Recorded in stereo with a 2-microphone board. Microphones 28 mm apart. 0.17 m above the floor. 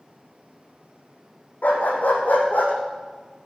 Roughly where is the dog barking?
Left.